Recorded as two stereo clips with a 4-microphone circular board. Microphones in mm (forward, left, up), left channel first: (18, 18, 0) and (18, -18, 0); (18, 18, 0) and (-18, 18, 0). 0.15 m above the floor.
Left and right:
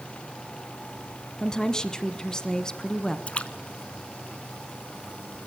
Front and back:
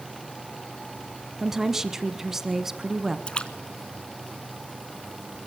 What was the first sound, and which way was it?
A woman speaking, 120° left.